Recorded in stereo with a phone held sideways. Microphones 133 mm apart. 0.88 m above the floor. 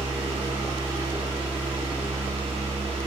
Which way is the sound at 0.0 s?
45° right (ahead or behind).